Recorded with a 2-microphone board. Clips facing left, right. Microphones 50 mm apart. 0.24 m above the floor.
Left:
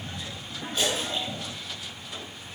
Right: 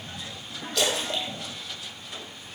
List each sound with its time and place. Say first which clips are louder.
0.8 s a splash: right 1 dB; 75° right (ahead or behind), 1.6 m